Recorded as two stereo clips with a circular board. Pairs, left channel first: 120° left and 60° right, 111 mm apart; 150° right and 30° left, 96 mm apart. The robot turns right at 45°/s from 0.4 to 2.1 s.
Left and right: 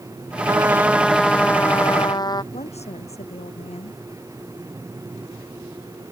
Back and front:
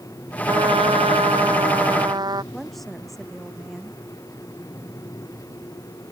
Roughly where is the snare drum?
No snare drum in this recording.